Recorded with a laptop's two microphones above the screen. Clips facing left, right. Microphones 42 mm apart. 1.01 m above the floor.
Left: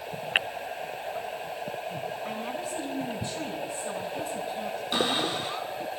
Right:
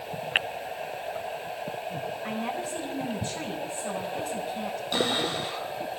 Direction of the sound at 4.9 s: 15° left (ahead or behind).